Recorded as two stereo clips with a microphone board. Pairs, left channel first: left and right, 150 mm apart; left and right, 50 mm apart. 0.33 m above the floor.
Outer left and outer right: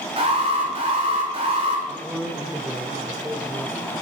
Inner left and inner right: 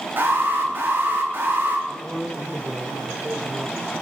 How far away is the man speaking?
About 1.1 m.